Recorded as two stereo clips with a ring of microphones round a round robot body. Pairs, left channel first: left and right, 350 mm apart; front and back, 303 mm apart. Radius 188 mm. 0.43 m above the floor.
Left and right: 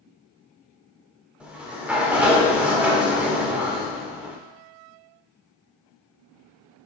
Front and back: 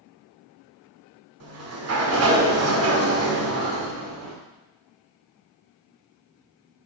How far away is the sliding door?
About 1.3 m.